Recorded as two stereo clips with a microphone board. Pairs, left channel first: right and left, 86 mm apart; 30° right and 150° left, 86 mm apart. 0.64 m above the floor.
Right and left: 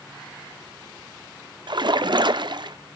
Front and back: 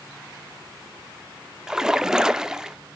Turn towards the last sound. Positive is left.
turn(degrees=70)